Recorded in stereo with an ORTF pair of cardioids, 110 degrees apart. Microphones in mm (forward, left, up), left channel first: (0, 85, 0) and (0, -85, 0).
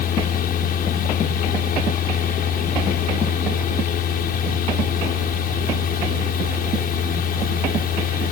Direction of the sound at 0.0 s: 60° left.